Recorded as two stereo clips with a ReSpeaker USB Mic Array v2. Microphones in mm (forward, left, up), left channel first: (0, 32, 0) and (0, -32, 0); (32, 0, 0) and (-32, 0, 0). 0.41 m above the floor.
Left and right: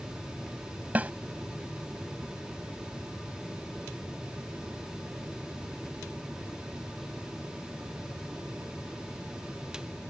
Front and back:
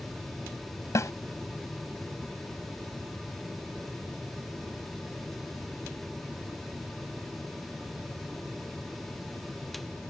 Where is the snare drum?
30° right.